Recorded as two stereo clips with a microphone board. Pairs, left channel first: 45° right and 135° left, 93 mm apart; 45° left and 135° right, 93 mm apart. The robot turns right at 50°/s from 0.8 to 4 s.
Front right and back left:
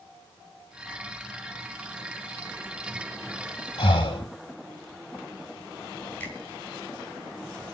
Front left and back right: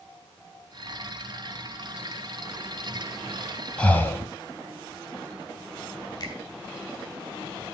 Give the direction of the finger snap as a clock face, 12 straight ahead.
11 o'clock.